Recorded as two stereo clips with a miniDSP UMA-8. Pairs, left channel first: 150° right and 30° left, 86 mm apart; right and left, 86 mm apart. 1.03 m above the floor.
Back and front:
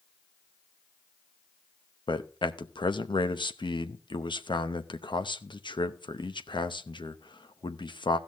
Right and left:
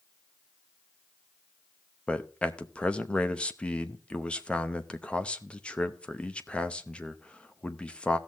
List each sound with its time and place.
2.1 s a man speaking: 165° right, 0.8 m